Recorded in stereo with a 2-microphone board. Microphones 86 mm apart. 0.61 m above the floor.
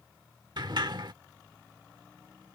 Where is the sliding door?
60° right (ahead or behind).